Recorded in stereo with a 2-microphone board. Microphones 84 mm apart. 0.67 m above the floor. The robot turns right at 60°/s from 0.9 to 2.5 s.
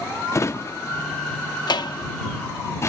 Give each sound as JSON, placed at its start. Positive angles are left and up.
{"t": 0.3, "sound": "a drawer", "side_deg": 35}